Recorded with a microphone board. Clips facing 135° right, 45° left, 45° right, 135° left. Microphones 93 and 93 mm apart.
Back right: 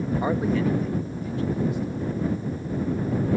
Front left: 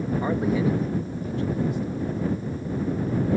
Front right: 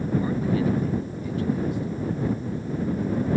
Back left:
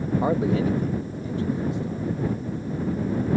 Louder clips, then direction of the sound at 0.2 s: Even, back left 2 dB; 155° left.